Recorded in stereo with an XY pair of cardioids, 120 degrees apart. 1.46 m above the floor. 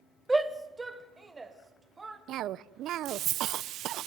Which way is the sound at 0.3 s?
15° right.